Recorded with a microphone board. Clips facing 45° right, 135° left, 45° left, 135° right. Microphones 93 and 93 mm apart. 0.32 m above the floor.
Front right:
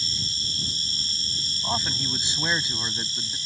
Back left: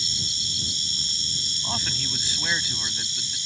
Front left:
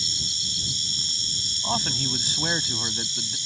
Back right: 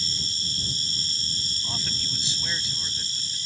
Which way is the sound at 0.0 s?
90° right.